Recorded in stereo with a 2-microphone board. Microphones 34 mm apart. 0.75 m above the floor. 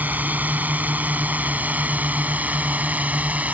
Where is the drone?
60° right (ahead or behind); by 3.5 s 50° right (ahead or behind).